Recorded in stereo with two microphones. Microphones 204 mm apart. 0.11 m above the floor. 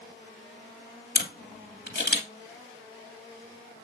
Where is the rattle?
I don't hear a rattle.